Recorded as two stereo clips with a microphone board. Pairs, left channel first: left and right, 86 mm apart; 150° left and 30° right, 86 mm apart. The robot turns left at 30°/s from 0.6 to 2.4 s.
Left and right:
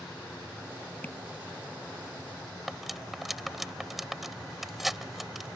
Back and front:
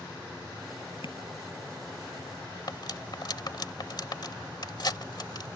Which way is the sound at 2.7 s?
Straight behind.